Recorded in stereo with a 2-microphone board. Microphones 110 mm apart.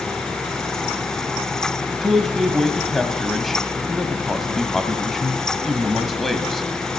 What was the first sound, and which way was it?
A man speaking, centre (ahead or behind).